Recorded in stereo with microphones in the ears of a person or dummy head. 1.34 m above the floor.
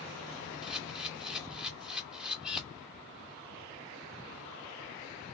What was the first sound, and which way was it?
A camera shutter, 5° right (ahead or behind).